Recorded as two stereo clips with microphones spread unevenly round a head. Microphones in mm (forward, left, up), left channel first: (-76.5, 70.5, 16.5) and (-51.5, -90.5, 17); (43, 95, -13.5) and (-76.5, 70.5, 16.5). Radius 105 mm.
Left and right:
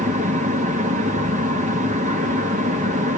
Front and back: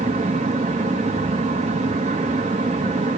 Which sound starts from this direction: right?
A fan, at 0.0 s.